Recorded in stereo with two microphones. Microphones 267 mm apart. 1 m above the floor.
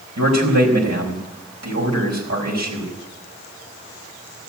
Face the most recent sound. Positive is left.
turn(degrees=-85)